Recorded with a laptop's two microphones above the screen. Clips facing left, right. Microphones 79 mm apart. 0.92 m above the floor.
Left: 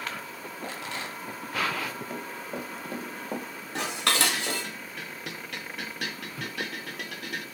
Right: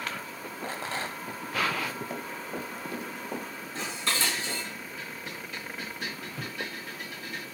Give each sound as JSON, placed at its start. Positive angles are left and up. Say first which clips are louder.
{"t": 0.6, "sound": "a rattle", "louder": "right 3 dB", "side_deg": -35, "distance_m": 0.7}
{"t": 2.1, "sound": "running footsteps", "louder": "even", "side_deg": -5, "distance_m": 1.1}
{"t": 3.8, "sound": "dishes clattering", "louder": "left 4 dB", "side_deg": 75, "distance_m": 0.6}